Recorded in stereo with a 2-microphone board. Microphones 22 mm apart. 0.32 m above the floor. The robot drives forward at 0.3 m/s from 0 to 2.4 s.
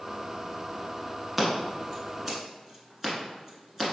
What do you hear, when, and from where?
1.4 s scissors: 5° right (ahead or behind), 0.8 m